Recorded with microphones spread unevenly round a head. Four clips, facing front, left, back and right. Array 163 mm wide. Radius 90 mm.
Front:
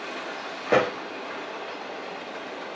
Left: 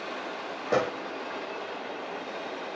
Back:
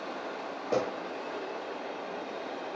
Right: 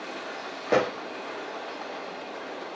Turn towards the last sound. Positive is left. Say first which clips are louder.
# right 3 dB, front 8 dB
turn(degrees=-70)